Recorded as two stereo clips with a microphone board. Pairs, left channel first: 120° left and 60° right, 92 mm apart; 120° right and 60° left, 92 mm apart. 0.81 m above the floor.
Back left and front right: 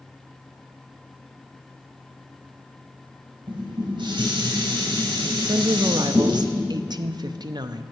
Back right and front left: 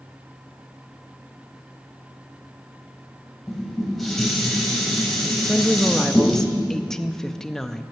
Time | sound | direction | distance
3.5 | dishes clattering | 30° right | 3 m
5.4 | a woman speaking | 35° right | 0.6 m